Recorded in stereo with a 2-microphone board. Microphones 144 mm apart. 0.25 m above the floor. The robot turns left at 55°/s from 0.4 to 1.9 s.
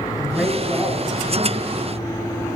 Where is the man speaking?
Centre (ahead or behind), 1.9 m; by 1.8 s 45° right (ahead or behind), 1.9 m.